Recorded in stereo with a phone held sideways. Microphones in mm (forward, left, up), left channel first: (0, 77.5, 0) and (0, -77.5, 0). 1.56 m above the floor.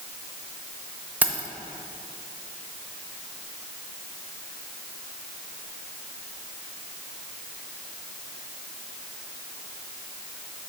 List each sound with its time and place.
1.2 s keys jangling: 10° right (ahead or behind), 0.7 m